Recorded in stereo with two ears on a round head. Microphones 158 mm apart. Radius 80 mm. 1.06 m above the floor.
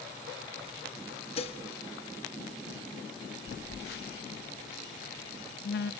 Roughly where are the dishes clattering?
Left.